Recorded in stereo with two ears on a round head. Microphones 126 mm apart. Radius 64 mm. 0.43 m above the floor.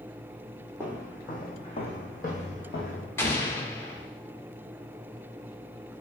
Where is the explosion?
15° left (ahead or behind), 0.6 m.